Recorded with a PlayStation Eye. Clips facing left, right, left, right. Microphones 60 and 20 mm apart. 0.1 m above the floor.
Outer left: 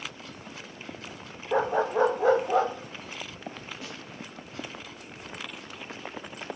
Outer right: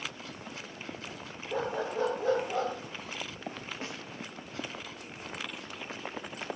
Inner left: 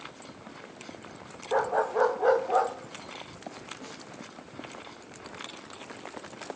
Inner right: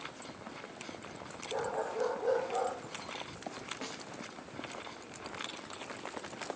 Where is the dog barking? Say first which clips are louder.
Outer left 8 dB, inner left 9 dB; 65° left (ahead or behind), 2.5 m; by 2.7 s 75° left (ahead or behind), 3 m.